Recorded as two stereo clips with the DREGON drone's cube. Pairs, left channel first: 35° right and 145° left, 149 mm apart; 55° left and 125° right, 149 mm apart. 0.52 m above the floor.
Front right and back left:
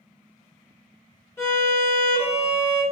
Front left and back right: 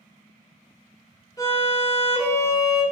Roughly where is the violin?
Ahead.